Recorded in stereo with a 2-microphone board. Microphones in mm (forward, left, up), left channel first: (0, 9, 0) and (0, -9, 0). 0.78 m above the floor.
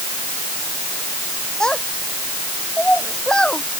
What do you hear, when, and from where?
1.6 s a child speaking: 40° left (ahead or behind); by 3.6 s 45° left (ahead or behind)